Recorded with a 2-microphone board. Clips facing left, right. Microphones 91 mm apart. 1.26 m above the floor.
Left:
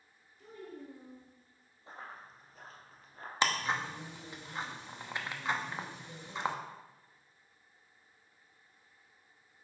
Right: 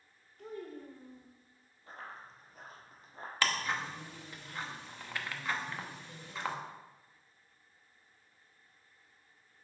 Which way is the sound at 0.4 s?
75° right (ahead or behind).